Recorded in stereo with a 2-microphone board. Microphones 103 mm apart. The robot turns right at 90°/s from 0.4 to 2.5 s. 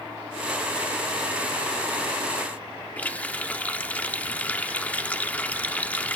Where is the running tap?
15° left (ahead or behind), 1.2 m.